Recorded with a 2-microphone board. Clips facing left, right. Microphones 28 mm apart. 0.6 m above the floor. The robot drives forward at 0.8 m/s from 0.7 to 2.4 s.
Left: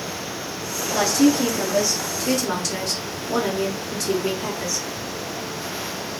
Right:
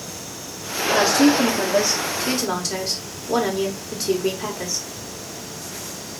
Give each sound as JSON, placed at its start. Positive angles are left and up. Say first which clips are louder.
{"t": 0.9, "sound": "a woman speaking", "louder": "right 2 dB", "side_deg": -15, "distance_m": 0.8}